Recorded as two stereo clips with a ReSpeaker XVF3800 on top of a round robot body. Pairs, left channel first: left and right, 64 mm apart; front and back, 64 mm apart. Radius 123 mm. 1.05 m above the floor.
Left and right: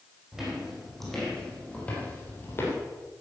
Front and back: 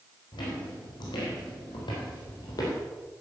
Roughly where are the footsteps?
Ahead.